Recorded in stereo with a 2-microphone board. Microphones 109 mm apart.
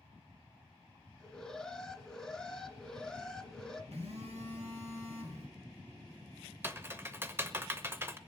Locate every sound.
1.2 s an alarm: 5° left (ahead or behind), 1.8 m
3.9 s a phone buzzing: 75° right (ahead or behind), 4 m
6.6 s typing on a keyboard: 20° right (ahead or behind), 0.8 m